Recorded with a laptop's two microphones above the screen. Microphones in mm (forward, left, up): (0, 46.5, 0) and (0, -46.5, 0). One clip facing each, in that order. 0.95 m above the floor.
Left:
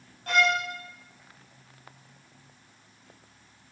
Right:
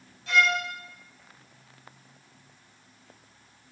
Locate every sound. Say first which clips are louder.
0.3 s a violin: even; 50° left (ahead or behind), 7 m